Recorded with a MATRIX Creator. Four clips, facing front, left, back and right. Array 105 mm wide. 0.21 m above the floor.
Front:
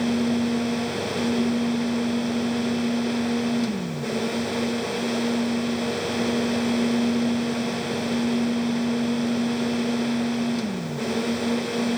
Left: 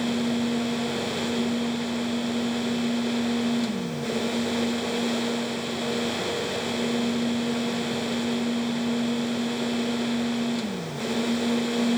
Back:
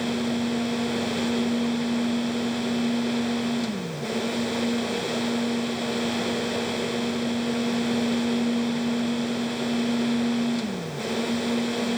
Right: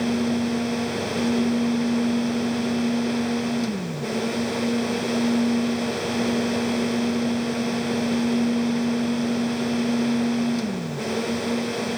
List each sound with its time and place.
Only background noise.